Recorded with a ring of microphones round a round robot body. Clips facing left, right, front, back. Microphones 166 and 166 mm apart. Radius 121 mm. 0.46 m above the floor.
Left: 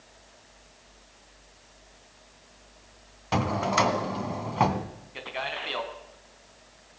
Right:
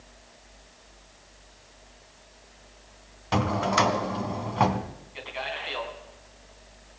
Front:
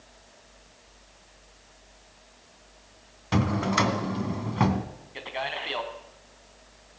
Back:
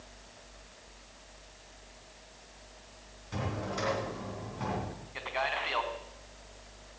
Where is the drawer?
Straight ahead, 2.0 m.